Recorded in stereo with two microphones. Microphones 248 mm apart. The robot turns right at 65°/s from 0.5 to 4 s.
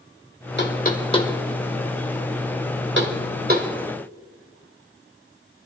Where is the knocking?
45° left (ahead or behind), 1.6 m; by 3.7 s 30° right (ahead or behind), 1.6 m.